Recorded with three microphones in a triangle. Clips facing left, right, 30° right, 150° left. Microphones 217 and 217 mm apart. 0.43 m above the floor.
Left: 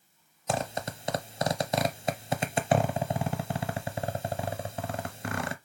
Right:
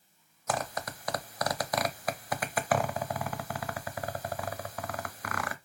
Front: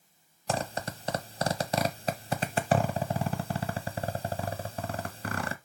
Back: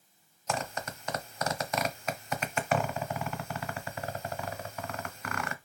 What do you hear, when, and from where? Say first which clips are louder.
0.5 s a zipper: left 3 dB, front 3 dB; 25° left, 0.6 m